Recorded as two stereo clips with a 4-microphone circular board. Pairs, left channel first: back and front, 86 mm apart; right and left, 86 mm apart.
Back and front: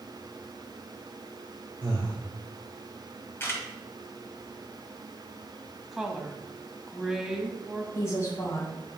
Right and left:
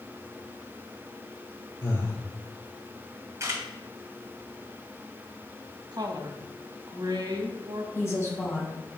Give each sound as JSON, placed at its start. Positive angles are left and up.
{"t": 1.8, "sound": "breathing", "azimuth_deg": -50, "distance_m": 3.5}
{"t": 3.4, "sound": "a camera shutter", "azimuth_deg": 130, "distance_m": 1.8}
{"t": 5.9, "sound": "a woman speaking", "azimuth_deg": 85, "distance_m": 1.4}
{"t": 8.0, "sound": "a woman speaking", "azimuth_deg": -135, "distance_m": 2.5}